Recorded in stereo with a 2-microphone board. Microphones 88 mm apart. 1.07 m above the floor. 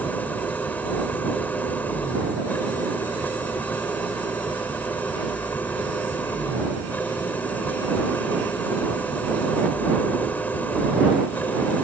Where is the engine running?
20° left (ahead or behind).